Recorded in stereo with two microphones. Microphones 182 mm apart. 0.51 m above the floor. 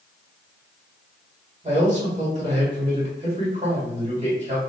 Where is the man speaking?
40° right (ahead or behind), 1.8 m.